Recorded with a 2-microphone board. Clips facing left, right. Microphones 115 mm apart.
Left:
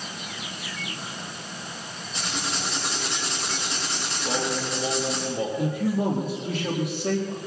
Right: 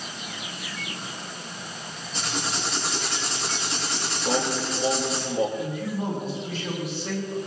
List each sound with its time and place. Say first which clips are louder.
2.1 s writing: right 1 dB; centre (ahead or behind), 8 m
4.2 s singing: right 2 dB; 5° right (ahead or behind), 3.5 m
5.6 s a man speaking: left 4 dB; 65° left (ahead or behind), 5 m